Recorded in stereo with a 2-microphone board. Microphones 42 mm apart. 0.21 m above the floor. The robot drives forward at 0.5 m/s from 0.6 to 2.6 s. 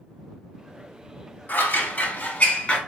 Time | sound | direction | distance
1.5 | scissors | 45° left (ahead or behind) | 0.6 m